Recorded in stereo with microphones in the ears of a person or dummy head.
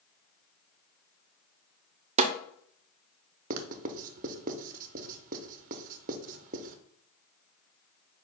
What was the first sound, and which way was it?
A snare drum, 30° right (ahead or behind).